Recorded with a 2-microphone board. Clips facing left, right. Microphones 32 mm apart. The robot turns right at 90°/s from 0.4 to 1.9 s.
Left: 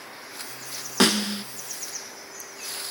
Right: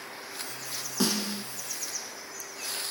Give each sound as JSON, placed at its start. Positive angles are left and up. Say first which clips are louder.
{"t": 1.0, "sound": "a snare drum", "louder": "left 8 dB", "azimuth_deg": 90, "distance_m": 0.6}